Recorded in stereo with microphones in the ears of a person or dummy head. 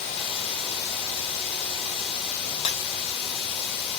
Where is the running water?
30° left (ahead or behind), 1.5 m.